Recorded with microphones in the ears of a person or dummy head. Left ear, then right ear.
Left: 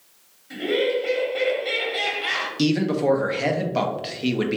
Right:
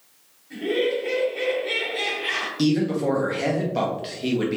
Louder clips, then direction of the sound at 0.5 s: Left 1 dB; 55° left (ahead or behind).